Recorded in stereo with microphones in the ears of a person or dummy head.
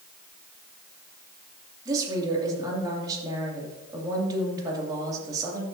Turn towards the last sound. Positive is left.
turn(degrees=-20)  # may be behind; listen again after turning